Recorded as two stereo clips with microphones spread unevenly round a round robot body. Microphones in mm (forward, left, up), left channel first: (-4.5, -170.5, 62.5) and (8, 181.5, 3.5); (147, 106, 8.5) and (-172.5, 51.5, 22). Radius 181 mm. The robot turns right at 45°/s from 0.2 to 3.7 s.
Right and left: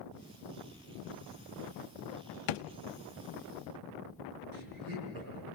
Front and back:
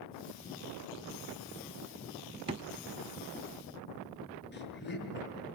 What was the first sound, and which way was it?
A drawer, 95° right.